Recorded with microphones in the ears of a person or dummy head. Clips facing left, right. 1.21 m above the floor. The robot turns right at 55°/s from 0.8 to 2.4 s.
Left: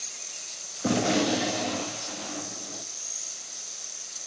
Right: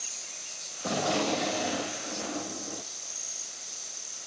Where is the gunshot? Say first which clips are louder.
Left 4 dB; 140° left, 1.4 m; by 2.8 s 135° right, 1.4 m.